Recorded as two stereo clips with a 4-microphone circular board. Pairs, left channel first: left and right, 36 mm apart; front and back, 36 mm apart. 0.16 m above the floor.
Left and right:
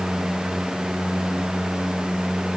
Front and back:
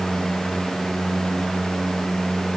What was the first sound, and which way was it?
Only background noise.